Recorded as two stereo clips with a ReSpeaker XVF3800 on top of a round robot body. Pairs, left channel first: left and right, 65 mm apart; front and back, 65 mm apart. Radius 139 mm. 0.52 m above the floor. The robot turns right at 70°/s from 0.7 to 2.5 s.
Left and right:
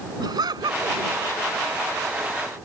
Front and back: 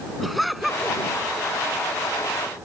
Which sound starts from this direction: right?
Laughter, at 0.2 s.